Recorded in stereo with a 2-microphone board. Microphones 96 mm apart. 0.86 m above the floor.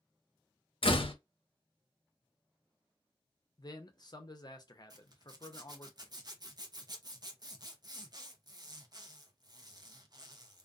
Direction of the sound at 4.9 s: 45° right (ahead or behind).